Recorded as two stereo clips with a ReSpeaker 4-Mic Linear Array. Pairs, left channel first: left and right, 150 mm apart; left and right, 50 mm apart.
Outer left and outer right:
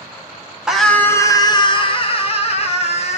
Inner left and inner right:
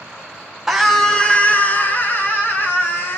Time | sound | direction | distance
0.7 | a scream | 5° right (ahead or behind) | 1.1 m